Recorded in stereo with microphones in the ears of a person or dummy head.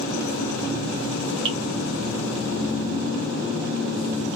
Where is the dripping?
25° right (ahead or behind), 0.8 m.